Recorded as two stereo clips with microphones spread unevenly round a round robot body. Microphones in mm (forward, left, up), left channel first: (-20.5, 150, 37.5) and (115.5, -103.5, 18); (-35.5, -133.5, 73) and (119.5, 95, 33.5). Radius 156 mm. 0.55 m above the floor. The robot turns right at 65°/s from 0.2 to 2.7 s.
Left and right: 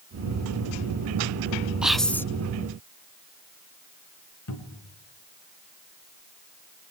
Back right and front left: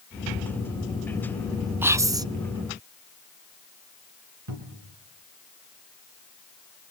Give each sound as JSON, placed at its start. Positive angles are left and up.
{"t": 1.8, "sound": "whispering", "azimuth_deg": 10, "distance_m": 0.6}
{"t": 4.5, "sound": "a cupboard door", "azimuth_deg": 85, "distance_m": 4.0}